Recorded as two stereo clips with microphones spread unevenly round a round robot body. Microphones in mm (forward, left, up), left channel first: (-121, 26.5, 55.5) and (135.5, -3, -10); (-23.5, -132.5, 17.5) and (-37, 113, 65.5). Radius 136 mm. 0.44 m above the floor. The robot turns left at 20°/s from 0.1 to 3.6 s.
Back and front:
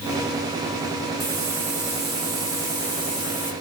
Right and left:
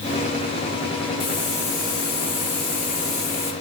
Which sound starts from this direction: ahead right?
A hiss, at 1.2 s.